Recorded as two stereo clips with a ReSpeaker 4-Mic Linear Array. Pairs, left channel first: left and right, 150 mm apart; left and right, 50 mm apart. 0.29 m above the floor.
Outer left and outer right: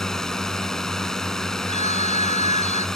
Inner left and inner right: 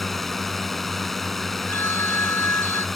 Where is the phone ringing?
50° left (ahead or behind).